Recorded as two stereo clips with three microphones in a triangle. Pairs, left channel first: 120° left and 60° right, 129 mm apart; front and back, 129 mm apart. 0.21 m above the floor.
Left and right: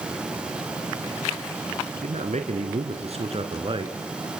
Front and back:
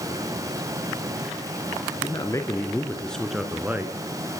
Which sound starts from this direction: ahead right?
A man speaking, at 1.9 s.